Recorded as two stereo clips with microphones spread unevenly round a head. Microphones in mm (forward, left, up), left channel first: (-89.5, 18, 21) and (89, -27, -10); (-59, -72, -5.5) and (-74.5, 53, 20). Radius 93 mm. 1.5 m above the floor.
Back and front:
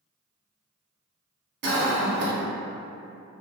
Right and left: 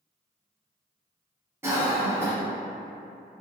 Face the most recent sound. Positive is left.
turn(degrees=20)